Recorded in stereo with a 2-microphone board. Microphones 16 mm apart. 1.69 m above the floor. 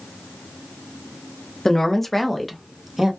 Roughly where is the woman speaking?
Left.